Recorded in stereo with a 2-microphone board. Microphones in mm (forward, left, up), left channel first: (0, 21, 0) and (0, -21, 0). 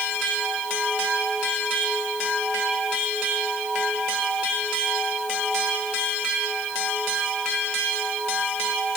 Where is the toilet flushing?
I don't hear a toilet flushing.